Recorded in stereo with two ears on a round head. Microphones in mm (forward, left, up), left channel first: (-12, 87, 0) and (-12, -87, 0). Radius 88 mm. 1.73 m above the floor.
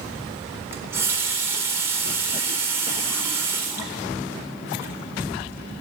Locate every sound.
0.7 s a running tap: 15° right (ahead or behind), 3.5 m